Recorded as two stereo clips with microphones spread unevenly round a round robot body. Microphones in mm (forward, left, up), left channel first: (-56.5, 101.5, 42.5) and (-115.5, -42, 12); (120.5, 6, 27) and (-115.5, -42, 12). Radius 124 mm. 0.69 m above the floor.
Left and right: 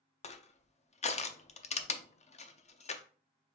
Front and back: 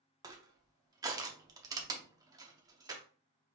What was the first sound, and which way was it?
Crushing, 120° left.